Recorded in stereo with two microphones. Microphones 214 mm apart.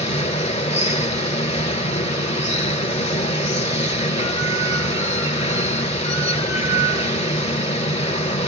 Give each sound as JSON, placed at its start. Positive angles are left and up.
{"t": 0.0, "sound": "running water", "side_deg": 30, "distance_m": 1.2}